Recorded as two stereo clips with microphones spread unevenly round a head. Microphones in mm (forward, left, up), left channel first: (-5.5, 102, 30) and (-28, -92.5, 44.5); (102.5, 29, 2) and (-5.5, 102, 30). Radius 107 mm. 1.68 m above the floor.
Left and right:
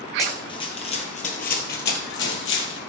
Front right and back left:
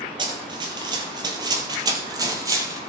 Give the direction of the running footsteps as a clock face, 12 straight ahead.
7 o'clock.